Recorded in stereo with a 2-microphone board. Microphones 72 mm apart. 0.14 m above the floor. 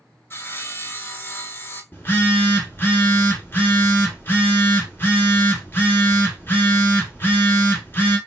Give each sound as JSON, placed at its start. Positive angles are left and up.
{"t": 0.3, "sound": "sawing", "side_deg": 35, "distance_m": 0.6}
{"t": 1.9, "sound": "a phone buzzing", "side_deg": 30, "distance_m": 1.1}